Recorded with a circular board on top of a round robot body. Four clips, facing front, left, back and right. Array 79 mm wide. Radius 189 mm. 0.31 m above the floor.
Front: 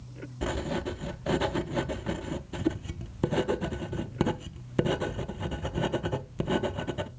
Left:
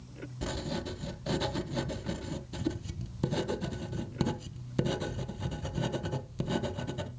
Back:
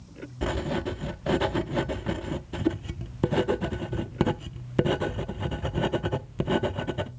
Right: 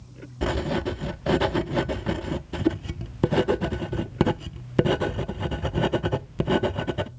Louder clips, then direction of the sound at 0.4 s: Right 10 dB, back 2 dB; 100° right.